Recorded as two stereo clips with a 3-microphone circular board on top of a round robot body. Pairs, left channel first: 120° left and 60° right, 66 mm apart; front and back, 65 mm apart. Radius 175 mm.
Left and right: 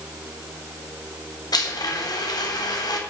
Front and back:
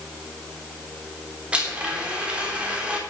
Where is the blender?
105° left, 3.5 m.